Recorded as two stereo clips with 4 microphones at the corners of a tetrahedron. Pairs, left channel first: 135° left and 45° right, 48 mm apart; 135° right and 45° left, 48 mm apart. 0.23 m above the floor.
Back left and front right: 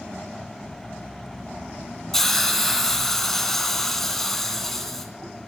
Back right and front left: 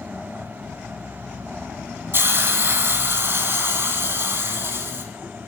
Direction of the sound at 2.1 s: 55° left.